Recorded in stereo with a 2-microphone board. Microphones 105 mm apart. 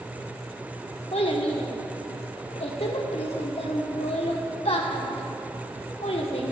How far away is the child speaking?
About 1.2 m.